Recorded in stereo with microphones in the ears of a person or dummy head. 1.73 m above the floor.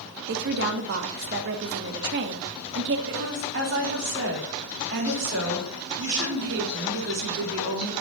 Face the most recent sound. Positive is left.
turn(degrees=-65)  # may be behind; listen again after turning